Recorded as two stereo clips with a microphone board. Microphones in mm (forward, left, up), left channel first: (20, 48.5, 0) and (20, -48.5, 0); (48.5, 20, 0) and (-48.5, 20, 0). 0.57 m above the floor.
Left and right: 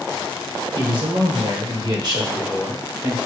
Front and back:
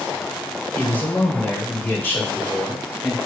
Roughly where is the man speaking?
Ahead right.